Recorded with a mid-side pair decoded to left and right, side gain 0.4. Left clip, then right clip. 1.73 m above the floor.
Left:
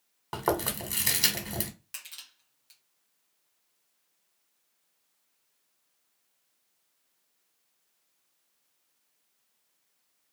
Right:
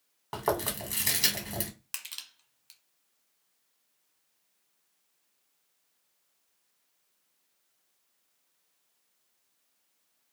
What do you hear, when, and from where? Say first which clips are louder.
0.3 s chewing: left 1 dB; 15° left, 1.2 m
1.9 s crushing: right 6 dB; 55° right, 1.2 m